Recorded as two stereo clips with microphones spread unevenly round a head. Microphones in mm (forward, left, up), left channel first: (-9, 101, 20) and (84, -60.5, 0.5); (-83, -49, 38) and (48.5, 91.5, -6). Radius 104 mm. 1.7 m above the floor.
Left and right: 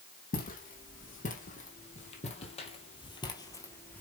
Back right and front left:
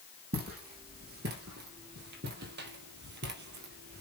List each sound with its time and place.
0.3 s footsteps: 85° left, 4.5 m; by 4.0 s 50° left, 2 m